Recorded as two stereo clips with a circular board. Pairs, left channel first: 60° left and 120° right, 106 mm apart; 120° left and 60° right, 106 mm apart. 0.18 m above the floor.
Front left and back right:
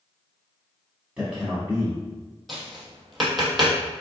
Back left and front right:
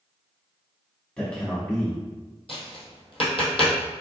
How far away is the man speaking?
About 1.1 m.